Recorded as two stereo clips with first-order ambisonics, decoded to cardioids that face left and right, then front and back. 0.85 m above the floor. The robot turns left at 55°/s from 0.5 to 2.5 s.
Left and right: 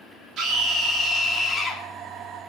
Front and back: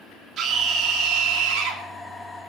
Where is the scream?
130° right, 2.5 m; by 1.8 s 155° left, 2.5 m.